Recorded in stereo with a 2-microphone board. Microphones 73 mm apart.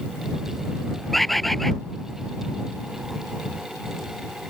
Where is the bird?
Centre (ahead or behind).